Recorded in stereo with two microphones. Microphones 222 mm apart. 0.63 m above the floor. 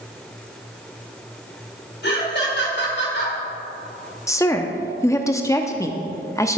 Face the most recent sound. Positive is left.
turn(degrees=15)  # may be behind; listen again after turning